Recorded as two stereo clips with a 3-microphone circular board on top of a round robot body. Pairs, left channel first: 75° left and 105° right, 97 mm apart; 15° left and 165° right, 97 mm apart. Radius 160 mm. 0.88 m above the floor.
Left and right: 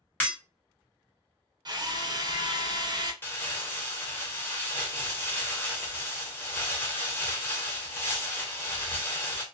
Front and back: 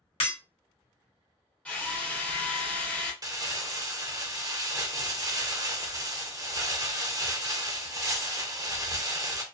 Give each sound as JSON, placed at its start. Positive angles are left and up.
{"t": 0.2, "sound": "breaking glass", "azimuth_deg": 0, "distance_m": 1.4}
{"t": 1.6, "sound": "a drill", "azimuth_deg": -60, "distance_m": 0.9}
{"t": 3.2, "sound": "crumpling", "azimuth_deg": 145, "distance_m": 0.8}